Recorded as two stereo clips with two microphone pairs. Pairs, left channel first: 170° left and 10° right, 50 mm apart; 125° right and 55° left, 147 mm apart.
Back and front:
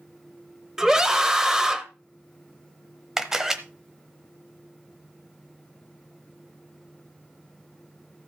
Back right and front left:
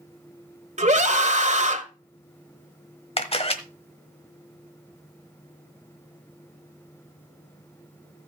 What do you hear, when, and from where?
0.8 s a scream: 70° left, 1.4 m
3.2 s a camera shutter: 80° right, 1.1 m